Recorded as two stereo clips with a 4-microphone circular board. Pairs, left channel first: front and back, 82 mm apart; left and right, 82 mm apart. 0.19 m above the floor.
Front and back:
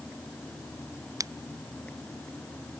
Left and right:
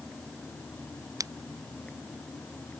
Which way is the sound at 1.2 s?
135° right.